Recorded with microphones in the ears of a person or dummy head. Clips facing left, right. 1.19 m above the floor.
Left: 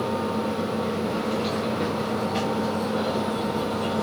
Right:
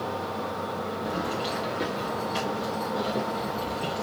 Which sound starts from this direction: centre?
Keys jangling, at 1.1 s.